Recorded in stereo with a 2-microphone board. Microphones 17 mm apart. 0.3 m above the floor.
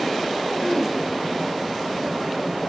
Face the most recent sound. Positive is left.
turn(degrees=55)  # may be behind; listen again after turning